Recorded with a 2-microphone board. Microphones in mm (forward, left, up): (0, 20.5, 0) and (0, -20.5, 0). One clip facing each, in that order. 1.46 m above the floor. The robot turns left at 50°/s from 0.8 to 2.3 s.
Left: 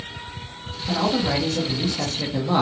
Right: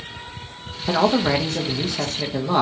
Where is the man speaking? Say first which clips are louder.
Right 4 dB; 100° right, 0.5 m; by 2.6 s 175° right, 0.5 m.